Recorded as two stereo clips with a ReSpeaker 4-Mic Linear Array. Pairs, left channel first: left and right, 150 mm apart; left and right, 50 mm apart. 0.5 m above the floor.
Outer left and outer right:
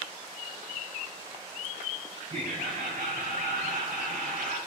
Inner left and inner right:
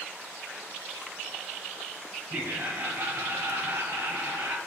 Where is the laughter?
60° right (ahead or behind), 2 m; by 4.6 s 70° right (ahead or behind), 4 m.